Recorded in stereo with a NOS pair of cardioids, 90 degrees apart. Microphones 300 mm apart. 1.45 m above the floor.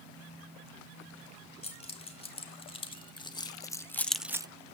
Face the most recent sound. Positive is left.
turn(degrees=-25)